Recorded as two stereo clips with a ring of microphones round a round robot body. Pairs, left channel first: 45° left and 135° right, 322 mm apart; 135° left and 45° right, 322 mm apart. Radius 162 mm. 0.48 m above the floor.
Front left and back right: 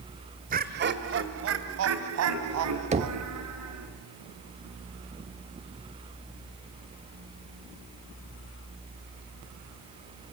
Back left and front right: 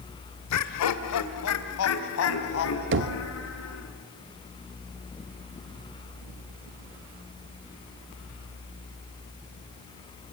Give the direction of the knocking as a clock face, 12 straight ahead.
2 o'clock.